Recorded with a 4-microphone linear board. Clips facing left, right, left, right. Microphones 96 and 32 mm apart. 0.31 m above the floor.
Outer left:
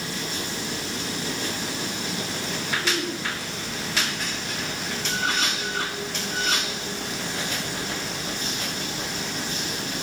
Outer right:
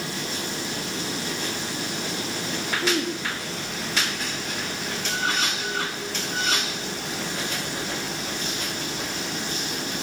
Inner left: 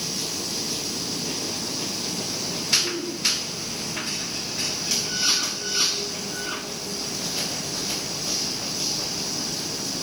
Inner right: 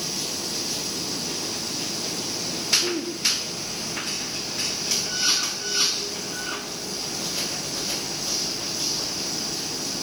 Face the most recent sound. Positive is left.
turn(degrees=-80)